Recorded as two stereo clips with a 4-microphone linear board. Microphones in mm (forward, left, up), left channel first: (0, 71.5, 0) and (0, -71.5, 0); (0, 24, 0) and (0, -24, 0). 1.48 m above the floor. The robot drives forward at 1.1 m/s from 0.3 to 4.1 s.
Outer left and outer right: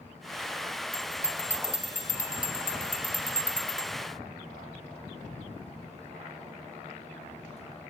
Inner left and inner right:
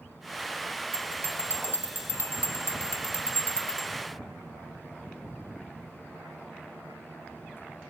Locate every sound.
0.9 s a bell: 45° left (ahead or behind), 3 m; by 3.9 s 50° left (ahead or behind), 3 m